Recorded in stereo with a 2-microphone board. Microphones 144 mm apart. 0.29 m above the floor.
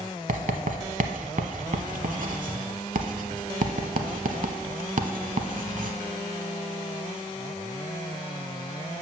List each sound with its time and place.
0.3 s writing: 65° right (ahead or behind), 0.7 m